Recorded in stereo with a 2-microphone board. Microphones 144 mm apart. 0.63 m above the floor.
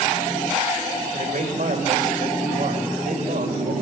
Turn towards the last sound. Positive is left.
turn(degrees=-70)  # may be behind; listen again after turning